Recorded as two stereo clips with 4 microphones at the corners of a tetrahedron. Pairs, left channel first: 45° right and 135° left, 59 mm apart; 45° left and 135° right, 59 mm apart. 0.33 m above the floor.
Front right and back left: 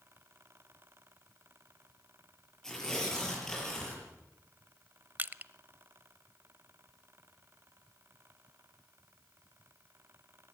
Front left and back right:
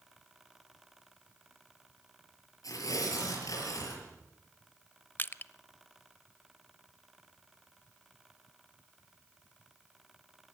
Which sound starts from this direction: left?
Crushing, at 5.2 s.